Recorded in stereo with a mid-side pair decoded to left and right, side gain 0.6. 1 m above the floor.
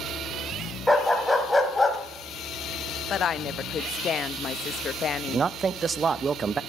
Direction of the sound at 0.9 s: Straight ahead.